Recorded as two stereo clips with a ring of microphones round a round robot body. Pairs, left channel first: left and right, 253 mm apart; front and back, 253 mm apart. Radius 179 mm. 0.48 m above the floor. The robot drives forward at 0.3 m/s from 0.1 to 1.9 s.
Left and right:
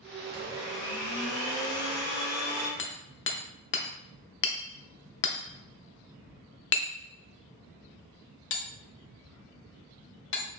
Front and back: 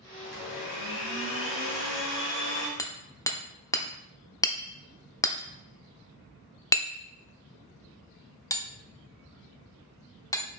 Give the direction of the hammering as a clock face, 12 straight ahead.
10 o'clock.